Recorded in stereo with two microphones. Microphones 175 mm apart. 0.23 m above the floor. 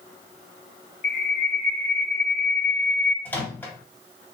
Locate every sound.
1.0 s a bird: 60° left (ahead or behind), 1.9 m
3.2 s a microwave: 10° left (ahead or behind), 0.7 m